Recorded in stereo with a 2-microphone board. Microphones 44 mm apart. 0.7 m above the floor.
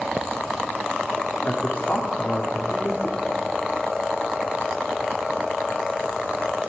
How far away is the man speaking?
About 1.7 m.